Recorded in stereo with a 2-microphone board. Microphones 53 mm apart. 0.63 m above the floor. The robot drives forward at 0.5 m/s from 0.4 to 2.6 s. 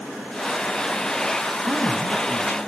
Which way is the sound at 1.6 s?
50° right (ahead or behind).